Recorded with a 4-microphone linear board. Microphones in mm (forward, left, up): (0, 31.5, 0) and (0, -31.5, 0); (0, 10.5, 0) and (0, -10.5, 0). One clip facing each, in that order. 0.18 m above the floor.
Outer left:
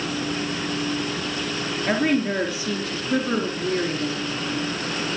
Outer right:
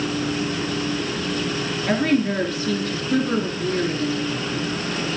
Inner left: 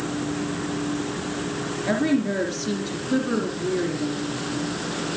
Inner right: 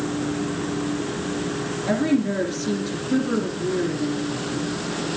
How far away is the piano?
No piano in this recording.